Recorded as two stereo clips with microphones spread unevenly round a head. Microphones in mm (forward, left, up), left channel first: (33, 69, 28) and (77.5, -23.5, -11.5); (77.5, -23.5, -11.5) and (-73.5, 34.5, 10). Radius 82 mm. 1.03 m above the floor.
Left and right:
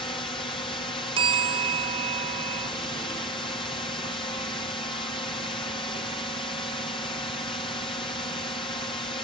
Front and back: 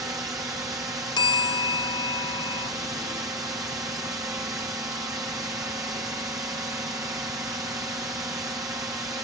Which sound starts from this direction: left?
A drone, at 0.0 s.